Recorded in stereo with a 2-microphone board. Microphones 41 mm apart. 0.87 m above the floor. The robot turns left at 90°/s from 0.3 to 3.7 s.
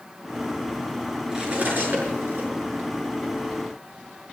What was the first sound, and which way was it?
Cutlery clinking, 10° right (ahead or behind).